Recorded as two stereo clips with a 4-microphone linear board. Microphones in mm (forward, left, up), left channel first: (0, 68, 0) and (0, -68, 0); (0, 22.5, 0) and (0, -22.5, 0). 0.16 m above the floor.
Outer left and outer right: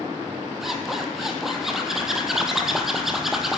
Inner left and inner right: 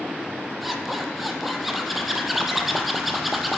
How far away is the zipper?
About 1.6 m.